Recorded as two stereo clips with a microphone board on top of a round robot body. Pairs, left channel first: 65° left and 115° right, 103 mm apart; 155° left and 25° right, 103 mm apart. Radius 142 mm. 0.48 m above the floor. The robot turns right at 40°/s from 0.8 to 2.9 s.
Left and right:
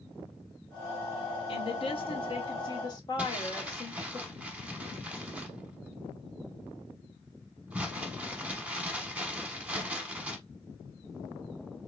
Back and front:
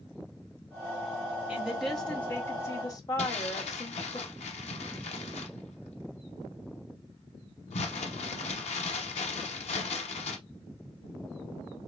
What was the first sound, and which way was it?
A woman speaking, 55° left.